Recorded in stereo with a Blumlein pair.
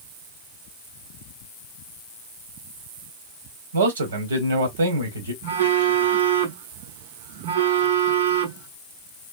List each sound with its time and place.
3.7 s a man speaking: 65° right, 1.2 m
5.4 s a phone buzzing: 60° right, 0.9 m